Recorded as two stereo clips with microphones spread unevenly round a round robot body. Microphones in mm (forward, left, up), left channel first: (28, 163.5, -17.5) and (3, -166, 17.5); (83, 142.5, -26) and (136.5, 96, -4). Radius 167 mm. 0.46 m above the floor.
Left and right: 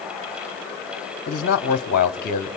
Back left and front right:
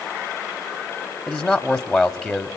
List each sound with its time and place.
1.3 s a man speaking: 70° left, 1.0 m